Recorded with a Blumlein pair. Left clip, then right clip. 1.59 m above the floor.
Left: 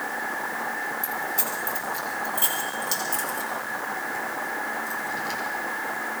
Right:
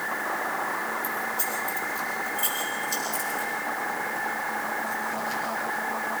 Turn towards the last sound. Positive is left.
turn(degrees=35)